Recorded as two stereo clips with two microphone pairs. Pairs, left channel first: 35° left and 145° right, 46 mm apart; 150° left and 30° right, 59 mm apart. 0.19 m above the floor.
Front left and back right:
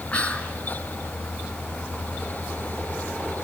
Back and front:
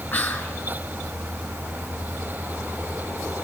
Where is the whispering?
90° left, 3 m.